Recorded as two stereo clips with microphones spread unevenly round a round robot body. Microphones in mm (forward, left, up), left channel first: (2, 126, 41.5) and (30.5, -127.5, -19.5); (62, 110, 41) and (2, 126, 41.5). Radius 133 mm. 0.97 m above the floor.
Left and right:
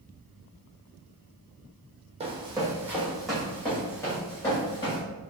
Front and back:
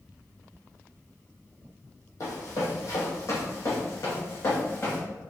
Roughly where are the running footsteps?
Ahead.